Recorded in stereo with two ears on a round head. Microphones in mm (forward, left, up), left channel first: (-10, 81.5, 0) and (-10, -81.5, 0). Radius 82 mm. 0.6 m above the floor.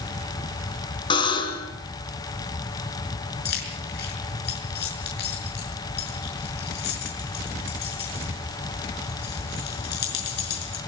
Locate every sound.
1.1 s a buzzer: 30° left (ahead or behind), 3 m
3.5 s keys jangling: 65° left (ahead or behind), 6 m